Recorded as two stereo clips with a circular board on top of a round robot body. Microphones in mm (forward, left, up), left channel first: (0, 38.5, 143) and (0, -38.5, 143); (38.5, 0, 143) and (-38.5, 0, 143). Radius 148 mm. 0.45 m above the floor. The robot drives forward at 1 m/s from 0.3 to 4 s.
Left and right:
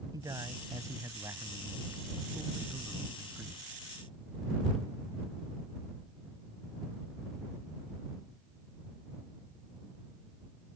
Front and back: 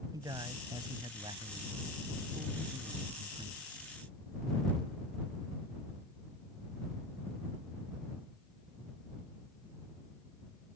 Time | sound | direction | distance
0.1 | a man speaking | 135° right | ?